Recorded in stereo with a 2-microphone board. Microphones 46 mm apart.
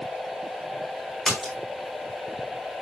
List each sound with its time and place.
1.2 s a splash: 10° left (ahead or behind), 3.5 m